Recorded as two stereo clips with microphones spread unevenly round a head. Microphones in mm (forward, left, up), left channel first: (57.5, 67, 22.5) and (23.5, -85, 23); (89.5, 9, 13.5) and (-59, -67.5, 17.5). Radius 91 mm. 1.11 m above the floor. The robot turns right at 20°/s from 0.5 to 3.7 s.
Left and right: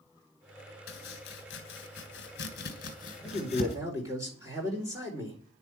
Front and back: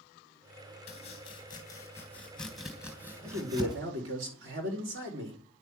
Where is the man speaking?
175° left, 4.5 m; by 5.4 s 175° right, 4.5 m.